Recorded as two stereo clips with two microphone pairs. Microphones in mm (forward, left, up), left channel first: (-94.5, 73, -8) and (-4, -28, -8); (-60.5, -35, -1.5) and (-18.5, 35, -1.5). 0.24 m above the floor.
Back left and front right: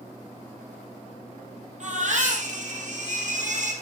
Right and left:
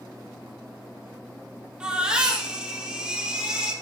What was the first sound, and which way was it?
A baby crying, 20° right.